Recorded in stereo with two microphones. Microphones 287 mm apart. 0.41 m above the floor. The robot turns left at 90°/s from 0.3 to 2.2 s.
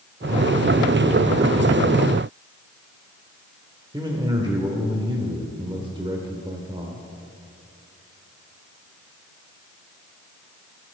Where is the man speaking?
15° right (ahead or behind), 1.0 m.